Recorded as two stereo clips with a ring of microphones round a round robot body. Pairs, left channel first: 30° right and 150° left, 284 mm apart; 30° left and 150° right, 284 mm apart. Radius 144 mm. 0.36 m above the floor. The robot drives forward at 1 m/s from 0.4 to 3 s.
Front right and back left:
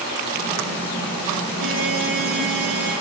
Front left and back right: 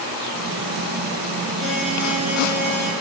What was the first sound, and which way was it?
A buzzer, 120° left.